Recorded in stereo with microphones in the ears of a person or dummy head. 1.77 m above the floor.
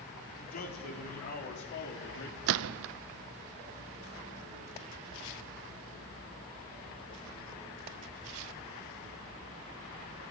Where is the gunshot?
70° right (ahead or behind), 0.6 m.